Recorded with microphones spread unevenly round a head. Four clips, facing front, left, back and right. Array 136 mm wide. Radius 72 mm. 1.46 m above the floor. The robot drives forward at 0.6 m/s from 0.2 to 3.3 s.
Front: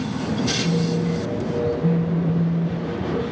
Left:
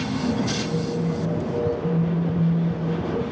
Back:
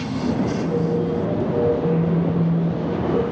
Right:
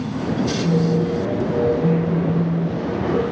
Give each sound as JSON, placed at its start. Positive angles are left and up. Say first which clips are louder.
{"t": 0.6, "sound": "a phone buzzing", "louder": "right 6 dB, back 2 dB", "azimuth_deg": -55, "distance_m": 7.5}